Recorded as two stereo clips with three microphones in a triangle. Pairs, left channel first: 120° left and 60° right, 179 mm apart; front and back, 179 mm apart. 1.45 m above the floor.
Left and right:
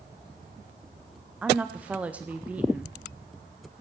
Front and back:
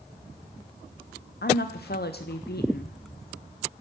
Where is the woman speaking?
25° left, 0.7 m.